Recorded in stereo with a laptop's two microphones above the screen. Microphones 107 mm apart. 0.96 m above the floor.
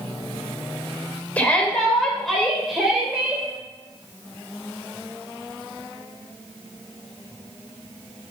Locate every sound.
1.4 s a shout: 15° left (ahead or behind), 3 m; by 3.5 s 10° right (ahead or behind), 3.5 m